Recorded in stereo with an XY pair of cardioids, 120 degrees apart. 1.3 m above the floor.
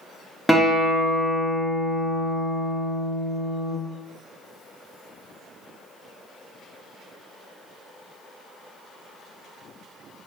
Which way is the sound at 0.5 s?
5° left.